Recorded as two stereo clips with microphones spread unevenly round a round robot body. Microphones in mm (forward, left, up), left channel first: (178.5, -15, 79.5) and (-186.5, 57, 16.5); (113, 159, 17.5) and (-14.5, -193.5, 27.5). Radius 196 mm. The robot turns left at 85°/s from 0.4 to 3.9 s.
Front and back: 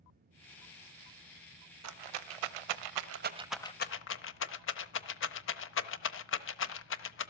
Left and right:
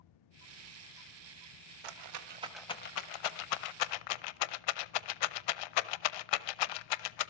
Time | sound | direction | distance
1.8 | a rattle | 140° right | 0.9 m